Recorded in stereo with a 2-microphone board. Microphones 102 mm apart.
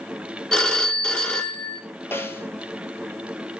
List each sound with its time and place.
0.5 s a phone ringing: 5° left (ahead or behind), 0.6 m
2.1 s a snare drum: 20° left (ahead or behind), 0.6 m